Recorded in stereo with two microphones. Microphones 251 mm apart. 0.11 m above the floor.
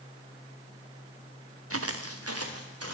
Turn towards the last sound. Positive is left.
turn(degrees=-85)